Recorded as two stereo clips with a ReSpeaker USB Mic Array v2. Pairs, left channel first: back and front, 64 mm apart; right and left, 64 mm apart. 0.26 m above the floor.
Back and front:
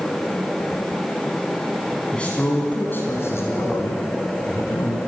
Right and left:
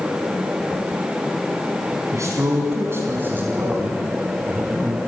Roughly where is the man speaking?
Left.